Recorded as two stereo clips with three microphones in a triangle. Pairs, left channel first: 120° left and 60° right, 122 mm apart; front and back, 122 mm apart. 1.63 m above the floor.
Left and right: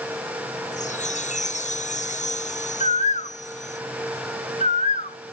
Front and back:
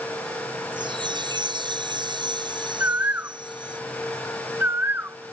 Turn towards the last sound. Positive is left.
turn(degrees=110)